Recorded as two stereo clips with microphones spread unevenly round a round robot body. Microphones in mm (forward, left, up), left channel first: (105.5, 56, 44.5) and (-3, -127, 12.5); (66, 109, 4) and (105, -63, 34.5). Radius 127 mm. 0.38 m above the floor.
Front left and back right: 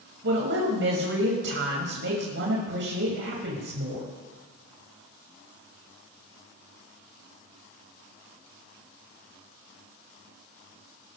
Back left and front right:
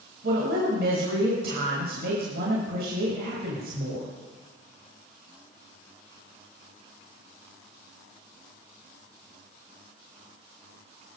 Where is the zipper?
No zipper in this recording.